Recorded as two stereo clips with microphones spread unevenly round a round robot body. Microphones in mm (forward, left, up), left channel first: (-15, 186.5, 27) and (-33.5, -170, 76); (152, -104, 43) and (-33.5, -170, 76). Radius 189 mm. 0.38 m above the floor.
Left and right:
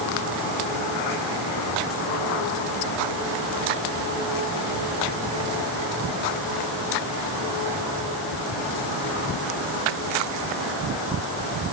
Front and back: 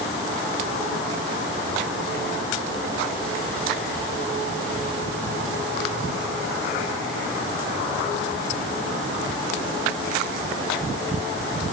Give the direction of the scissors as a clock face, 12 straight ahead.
I don't hear scissors.